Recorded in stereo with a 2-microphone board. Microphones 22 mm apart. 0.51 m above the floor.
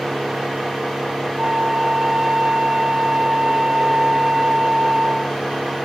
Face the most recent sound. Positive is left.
turn(degrees=-40)  # may be behind; listen again after turning